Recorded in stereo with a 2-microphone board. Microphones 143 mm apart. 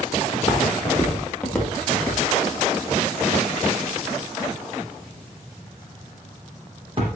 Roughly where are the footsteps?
Left.